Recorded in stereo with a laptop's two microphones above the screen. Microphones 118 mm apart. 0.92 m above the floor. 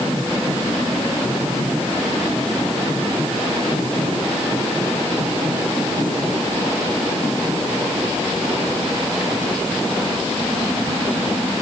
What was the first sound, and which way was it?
Only background noise.